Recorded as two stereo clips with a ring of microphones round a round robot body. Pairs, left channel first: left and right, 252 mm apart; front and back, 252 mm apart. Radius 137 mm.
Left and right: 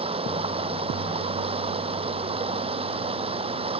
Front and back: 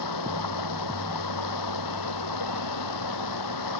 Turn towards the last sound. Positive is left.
turn(degrees=-20)